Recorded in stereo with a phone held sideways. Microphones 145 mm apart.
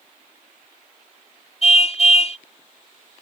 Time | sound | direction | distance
1.6 | a car horn | 50° left (ahead or behind) | ?